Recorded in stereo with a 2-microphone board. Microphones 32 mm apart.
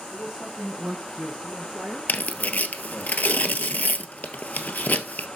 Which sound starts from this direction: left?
Tearing paper, at 2.1 s.